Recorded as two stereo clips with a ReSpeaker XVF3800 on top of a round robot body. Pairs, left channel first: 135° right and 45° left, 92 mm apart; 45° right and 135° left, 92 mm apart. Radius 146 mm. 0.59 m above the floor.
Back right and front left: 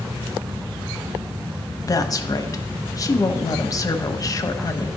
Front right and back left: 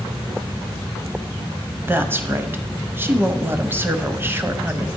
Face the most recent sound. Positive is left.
turn(degrees=-170)